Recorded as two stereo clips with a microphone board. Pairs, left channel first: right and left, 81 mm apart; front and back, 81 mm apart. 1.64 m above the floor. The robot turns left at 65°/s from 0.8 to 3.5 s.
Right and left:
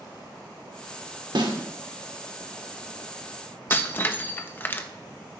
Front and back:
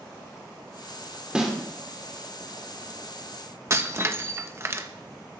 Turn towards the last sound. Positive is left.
turn(degrees=-140)